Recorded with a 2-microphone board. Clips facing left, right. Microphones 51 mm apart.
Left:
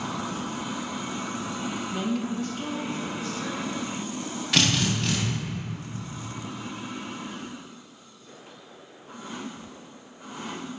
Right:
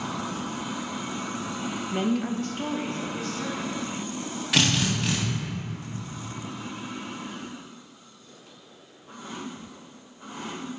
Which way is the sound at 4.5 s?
5° right (ahead or behind).